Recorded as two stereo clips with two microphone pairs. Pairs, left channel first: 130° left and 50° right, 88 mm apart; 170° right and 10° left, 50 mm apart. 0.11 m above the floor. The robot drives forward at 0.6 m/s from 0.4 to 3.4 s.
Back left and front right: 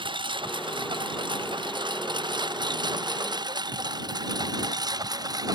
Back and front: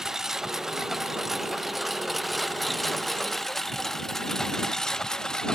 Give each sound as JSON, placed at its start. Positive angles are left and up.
{"t": 0.0, "sound": "a lawn mower", "azimuth_deg": -70}